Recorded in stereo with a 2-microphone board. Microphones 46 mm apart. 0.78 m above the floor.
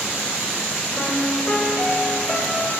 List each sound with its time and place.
1.0 s a piano: 15° left (ahead or behind), 2.5 m